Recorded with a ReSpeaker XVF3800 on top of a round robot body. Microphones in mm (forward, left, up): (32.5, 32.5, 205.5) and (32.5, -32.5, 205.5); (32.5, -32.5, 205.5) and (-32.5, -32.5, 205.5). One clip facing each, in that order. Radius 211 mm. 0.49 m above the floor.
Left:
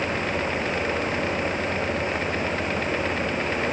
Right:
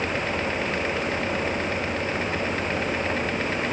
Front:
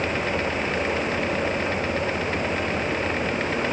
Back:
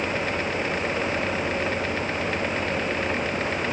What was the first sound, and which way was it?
Only background noise.